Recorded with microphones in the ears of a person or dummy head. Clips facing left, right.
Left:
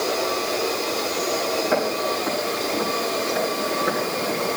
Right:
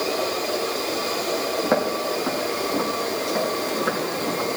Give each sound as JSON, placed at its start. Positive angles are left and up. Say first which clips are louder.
{"t": 1.6, "sound": "footsteps", "louder": "right 2 dB", "side_deg": -60, "distance_m": 5.5}